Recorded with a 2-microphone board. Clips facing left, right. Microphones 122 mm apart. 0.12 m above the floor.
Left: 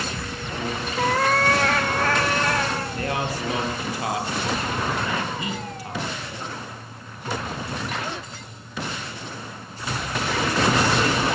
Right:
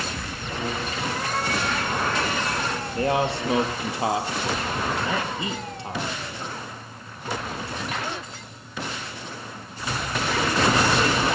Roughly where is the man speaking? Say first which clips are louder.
Right 8 dB; right.